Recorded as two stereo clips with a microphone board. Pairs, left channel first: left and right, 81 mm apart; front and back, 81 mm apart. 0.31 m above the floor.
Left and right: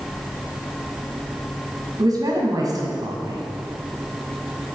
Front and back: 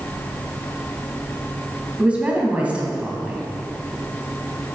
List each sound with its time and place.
2.0 s a woman speaking: 110° right, 1.8 m